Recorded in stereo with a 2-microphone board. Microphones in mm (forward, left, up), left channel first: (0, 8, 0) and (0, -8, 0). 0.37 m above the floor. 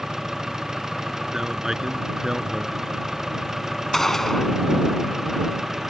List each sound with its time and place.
0.0 s an engine running: 35° right (ahead or behind)
1.3 s a man speaking: 40° right (ahead or behind)
3.9 s a gunshot: 20° left (ahead or behind)